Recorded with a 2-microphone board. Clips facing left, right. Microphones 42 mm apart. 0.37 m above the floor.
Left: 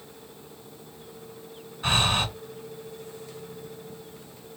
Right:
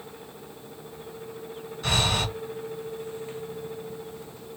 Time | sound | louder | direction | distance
1.8 | breathing | left 2 dB | 25° left (ahead or behind) | 3 m